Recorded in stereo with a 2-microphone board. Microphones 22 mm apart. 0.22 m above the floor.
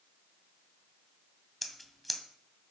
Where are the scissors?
5° left (ahead or behind), 1.7 m.